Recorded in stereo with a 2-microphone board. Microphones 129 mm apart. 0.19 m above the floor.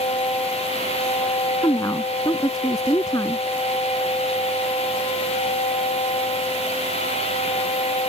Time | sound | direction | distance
1.6 | a woman speaking | 30° left (ahead or behind) | ?